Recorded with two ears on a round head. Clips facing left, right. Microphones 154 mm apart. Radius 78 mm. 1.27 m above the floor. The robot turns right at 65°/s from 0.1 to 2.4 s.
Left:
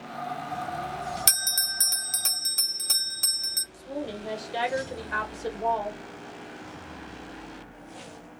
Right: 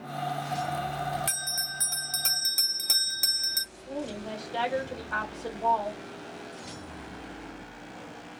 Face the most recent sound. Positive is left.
turn(degrees=15)  # may be behind; listen again after turning